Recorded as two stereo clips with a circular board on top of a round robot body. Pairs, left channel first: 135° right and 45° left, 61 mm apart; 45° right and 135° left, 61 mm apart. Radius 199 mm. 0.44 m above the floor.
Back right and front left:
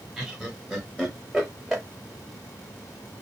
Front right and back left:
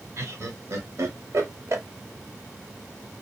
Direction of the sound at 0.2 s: 130° left.